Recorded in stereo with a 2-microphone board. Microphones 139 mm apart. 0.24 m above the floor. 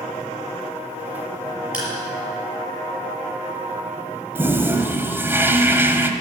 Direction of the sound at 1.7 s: 5° right (ahead or behind).